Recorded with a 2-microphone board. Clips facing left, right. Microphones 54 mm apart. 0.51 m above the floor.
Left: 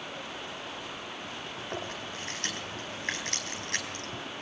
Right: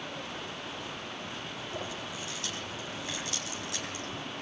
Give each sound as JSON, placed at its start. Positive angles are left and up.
{"t": 1.6, "sound": "chewing", "side_deg": 50, "distance_m": 4.5}